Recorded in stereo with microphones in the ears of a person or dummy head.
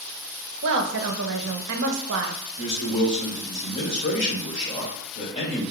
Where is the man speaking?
25° left (ahead or behind), 1.9 m.